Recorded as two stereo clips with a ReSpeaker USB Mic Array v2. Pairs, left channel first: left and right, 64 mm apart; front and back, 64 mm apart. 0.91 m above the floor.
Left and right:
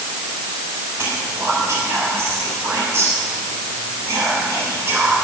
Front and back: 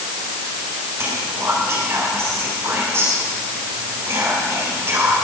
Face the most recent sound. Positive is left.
turn(degrees=-135)